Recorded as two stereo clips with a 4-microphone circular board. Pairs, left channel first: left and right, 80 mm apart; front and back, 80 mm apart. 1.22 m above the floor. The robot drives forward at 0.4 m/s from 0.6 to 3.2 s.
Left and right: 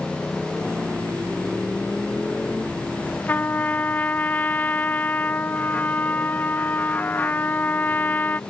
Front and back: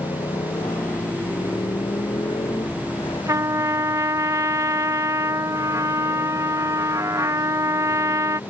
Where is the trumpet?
150° left.